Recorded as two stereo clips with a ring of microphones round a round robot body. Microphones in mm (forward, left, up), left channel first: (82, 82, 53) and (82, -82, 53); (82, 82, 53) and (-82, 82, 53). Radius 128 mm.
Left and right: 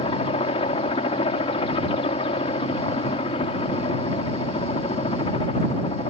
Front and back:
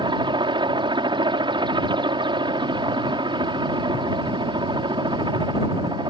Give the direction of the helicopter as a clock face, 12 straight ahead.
8 o'clock.